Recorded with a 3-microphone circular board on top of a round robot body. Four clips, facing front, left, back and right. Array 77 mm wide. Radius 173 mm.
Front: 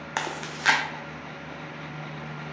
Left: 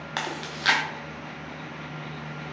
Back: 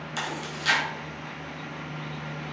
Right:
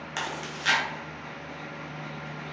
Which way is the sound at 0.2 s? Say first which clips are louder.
Left 2 dB, front 2 dB; 20° left.